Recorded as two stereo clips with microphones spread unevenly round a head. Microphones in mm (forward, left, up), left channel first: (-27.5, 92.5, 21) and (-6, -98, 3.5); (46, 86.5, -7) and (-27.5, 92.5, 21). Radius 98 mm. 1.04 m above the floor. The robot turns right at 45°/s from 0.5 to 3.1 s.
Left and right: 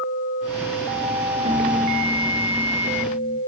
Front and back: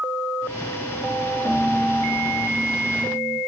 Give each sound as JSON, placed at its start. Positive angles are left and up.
{"t": 1.4, "sound": "a piano", "azimuth_deg": -40, "distance_m": 1.4}